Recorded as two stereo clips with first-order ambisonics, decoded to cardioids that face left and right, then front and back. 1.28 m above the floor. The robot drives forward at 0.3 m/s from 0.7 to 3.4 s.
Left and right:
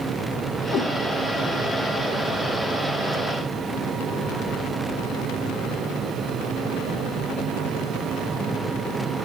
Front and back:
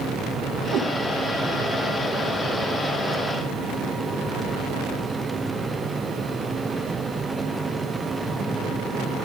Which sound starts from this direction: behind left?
A cat meowing, at 0.7 s.